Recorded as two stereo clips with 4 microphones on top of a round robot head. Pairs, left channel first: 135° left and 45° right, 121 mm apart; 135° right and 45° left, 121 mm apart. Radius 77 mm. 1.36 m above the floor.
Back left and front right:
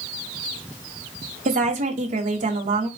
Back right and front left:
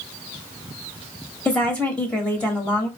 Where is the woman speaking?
55° right, 1.2 m.